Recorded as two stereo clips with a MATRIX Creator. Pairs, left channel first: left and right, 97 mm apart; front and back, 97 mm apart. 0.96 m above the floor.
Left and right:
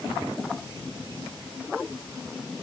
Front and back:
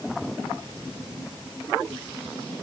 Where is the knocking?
I don't hear knocking.